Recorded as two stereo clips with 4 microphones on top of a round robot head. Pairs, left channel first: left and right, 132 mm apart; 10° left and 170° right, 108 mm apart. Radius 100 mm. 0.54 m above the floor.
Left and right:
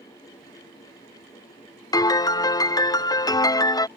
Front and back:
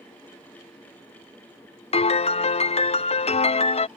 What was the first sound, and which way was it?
A piano, 30° left.